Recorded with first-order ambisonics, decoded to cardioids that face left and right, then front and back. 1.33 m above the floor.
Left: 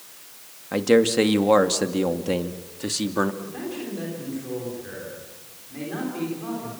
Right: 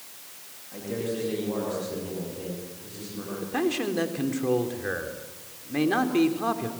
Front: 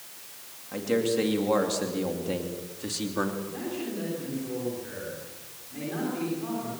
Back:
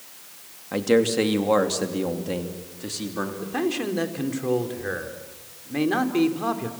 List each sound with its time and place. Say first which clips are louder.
0.7 s a man speaking: left 13 dB, back 6 dB; 120° left, 2.5 m; by 3.3 s 85° left, 3 m
3.4 s a man speaking: right 6 dB, back 8 dB; 140° right, 3.5 m